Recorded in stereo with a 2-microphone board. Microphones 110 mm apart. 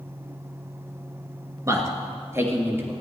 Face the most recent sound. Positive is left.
turn(degrees=-20)  # may be behind; listen again after turning